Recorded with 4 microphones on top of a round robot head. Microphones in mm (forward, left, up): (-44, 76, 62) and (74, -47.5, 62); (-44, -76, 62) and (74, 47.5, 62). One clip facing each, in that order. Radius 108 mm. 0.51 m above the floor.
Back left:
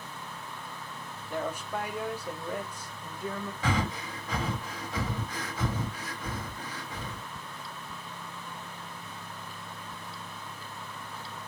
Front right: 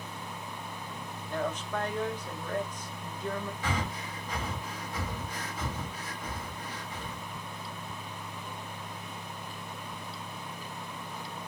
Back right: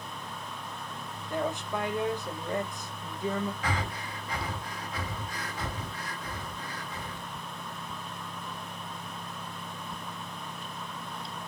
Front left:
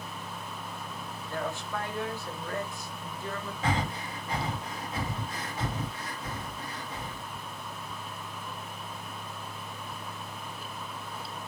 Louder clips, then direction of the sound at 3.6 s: Back left 4 dB, front left 3 dB; 115° left.